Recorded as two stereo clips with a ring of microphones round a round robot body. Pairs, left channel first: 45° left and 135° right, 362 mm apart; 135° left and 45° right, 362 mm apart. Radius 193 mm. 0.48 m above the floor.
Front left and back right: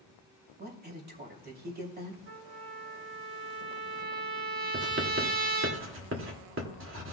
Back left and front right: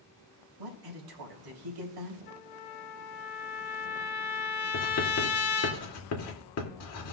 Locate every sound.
0.6 s a man speaking: 70° right, 3 m
2.3 s a trumpet: 170° left, 2.5 m
4.7 s writing: 175° left, 2.0 m